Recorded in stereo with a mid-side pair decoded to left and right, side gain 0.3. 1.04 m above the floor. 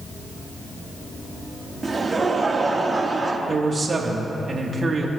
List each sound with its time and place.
1.8 s laughter: 45° right, 3 m
3.5 s a man speaking: 50° right, 2.5 m